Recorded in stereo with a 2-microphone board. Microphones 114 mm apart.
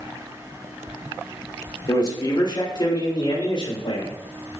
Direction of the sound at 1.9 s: 40° left (ahead or behind).